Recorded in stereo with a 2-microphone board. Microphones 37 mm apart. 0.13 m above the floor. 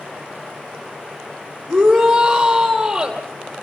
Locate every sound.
1.7 s a shout: 10° right (ahead or behind), 4 m